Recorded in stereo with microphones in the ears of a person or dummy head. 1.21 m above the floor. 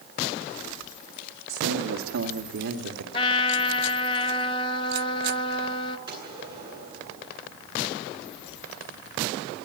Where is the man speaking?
85° right, 1.8 m; by 3.0 s 75° right (ahead or behind), 2.5 m.